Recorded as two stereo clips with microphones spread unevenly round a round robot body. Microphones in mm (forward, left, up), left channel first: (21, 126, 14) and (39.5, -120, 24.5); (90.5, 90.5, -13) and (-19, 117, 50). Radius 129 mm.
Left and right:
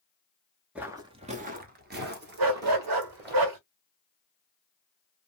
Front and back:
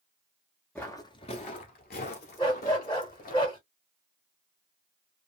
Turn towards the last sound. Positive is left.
turn(degrees=-95)